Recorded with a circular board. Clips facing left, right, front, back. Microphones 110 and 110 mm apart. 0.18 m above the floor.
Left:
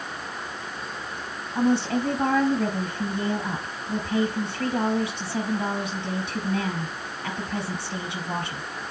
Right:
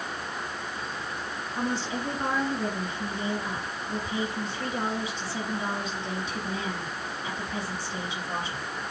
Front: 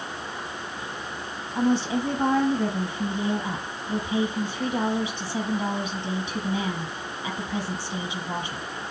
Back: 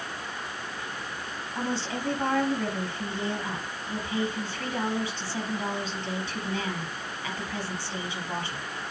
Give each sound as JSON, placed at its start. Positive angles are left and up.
{"t": 1.6, "sound": "a woman speaking", "azimuth_deg": 70, "distance_m": 4.0}